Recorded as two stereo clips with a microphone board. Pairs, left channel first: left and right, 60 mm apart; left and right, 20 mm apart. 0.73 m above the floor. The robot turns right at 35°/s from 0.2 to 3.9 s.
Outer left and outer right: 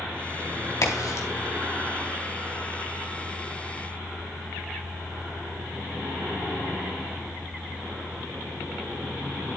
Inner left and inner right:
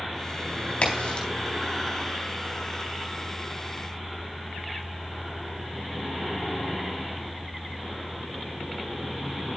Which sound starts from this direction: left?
A crack, at 0.8 s.